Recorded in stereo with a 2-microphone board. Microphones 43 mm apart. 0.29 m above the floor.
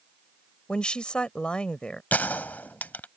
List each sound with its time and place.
0.7 s a woman speaking: 25° left (ahead or behind)
2.1 s a gunshot: 45° left (ahead or behind)